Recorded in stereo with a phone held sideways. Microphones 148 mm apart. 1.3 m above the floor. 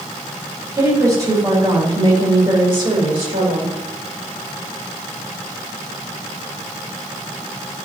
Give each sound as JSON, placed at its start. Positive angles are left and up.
{"t": 0.7, "sound": "a woman speaking", "side_deg": -25, "distance_m": 4.5}